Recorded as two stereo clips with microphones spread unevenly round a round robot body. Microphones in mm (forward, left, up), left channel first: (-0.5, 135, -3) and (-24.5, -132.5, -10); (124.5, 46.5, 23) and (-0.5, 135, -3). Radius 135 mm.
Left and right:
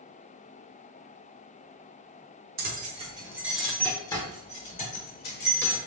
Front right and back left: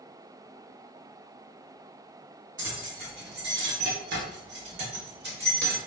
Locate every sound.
2.6 s keys jangling: 155° right, 1.0 m; by 5.8 s 135° left, 1.8 m